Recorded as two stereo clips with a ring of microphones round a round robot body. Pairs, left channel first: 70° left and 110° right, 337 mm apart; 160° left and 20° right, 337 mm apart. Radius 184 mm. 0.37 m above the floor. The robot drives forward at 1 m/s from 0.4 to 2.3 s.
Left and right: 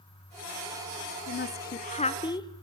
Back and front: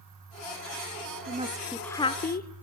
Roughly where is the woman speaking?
Ahead left.